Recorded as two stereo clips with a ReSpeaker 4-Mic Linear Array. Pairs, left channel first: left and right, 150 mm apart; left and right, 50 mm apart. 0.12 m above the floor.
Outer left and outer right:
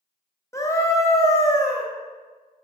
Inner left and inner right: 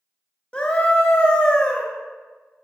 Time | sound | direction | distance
0.5 | a scream | 20° left (ahead or behind) | 2 m